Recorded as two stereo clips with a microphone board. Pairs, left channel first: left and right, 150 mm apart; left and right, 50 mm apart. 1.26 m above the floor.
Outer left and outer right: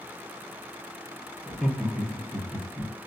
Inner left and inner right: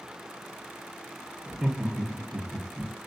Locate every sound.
1.5 s laughter: 5° right (ahead or behind), 0.5 m; by 2.9 s 5° left (ahead or behind), 1.2 m